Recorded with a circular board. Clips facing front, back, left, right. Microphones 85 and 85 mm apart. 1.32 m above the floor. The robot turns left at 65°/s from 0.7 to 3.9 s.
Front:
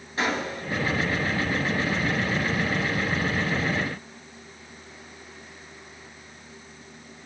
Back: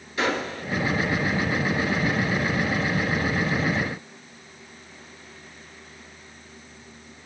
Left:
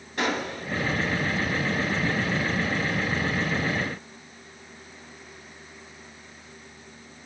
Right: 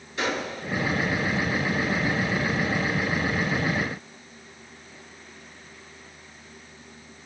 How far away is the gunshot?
About 2.5 m.